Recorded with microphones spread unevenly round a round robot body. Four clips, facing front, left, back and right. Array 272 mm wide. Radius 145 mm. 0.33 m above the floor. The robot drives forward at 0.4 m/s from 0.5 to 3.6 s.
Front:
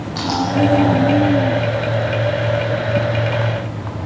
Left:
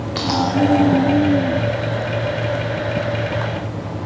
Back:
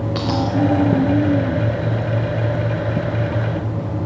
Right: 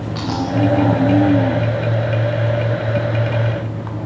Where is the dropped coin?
170° right, 4 m.